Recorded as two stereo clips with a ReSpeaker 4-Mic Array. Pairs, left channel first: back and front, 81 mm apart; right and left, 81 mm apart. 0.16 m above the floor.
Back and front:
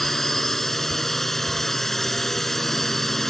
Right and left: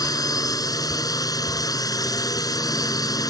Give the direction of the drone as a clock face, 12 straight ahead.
3 o'clock.